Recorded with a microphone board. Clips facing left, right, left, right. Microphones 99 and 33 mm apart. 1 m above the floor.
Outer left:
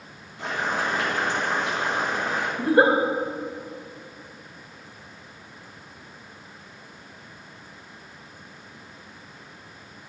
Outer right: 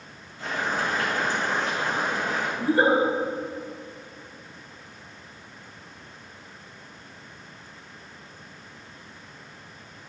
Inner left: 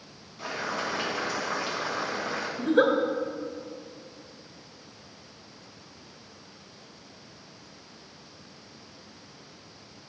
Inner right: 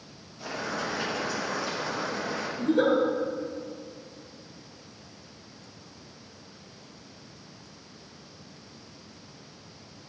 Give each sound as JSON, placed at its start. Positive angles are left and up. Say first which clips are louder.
{"t": 0.4, "sound": "boiling", "louder": "outer left 1 dB, inner left 1 dB", "side_deg": 85, "distance_m": 4.0}
{"t": 2.6, "sound": "a giggle", "louder": "outer left 3 dB, inner left 1 dB", "side_deg": 55, "distance_m": 1.9}